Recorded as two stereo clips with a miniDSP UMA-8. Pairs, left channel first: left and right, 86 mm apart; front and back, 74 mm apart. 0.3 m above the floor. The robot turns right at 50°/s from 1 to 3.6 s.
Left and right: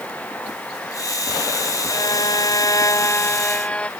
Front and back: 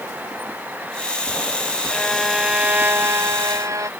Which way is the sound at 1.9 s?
75° left.